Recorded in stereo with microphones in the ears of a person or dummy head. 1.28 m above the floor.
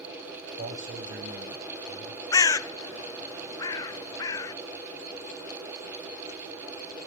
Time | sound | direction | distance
0.6 | a man speaking | 50° right (ahead or behind) | 8 m
2.3 | a bird | 15° left (ahead or behind) | 0.6 m